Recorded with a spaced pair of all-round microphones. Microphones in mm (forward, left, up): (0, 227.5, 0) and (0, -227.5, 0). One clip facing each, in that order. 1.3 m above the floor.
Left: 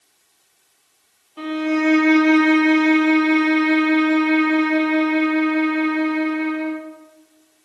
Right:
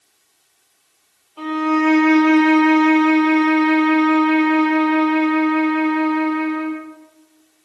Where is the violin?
40° left (ahead or behind), 0.6 m.